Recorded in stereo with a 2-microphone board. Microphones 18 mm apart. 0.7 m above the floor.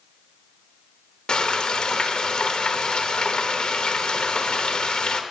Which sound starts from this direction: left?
Frying, at 1.3 s.